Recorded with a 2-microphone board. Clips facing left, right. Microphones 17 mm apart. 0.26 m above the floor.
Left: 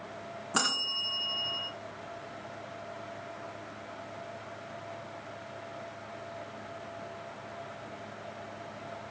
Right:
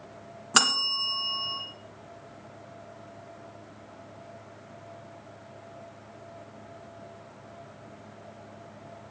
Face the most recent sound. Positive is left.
turn(degrees=-60)  # may be behind; listen again after turning